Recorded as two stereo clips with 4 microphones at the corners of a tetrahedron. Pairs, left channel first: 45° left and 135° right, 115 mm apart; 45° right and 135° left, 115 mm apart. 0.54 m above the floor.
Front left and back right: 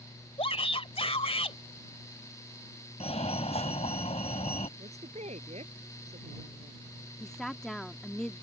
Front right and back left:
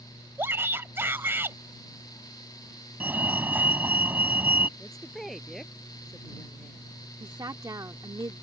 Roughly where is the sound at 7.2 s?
Behind left.